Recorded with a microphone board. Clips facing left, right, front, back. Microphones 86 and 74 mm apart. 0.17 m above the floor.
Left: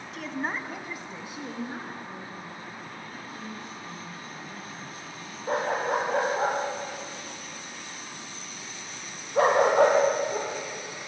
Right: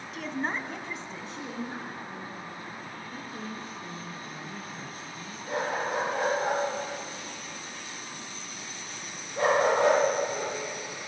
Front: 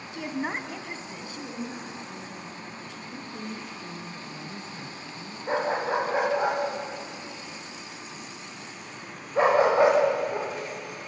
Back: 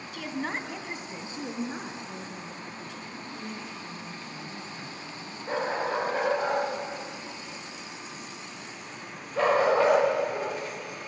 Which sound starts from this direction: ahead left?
A dog barking, at 5.5 s.